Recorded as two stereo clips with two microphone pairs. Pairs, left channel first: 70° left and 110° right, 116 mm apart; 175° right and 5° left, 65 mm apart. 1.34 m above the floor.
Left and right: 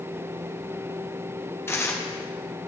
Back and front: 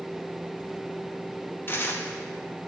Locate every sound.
1.7 s tearing paper: 135° left, 0.6 m